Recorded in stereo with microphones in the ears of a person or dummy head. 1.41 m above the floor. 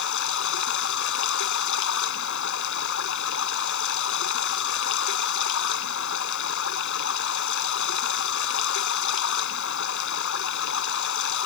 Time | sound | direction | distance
0.0 | running water | 70° left (ahead or behind) | ?